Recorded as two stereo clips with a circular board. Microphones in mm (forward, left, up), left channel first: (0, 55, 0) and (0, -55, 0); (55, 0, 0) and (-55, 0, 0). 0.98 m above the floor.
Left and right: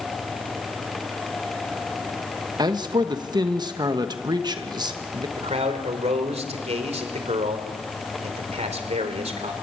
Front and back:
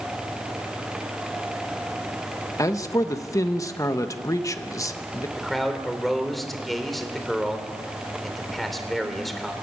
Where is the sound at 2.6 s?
50° right, 1.1 m.